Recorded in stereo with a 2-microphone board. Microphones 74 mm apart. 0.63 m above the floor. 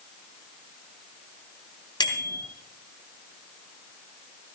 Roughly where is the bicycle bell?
Left.